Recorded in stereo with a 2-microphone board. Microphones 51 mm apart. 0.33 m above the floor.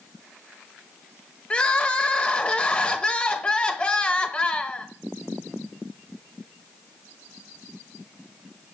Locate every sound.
1.5 s crying: 20° left (ahead or behind), 1.2 m